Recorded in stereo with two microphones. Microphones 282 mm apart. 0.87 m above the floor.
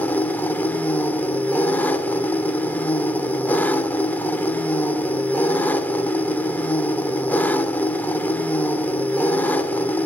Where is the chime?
No chime in this recording.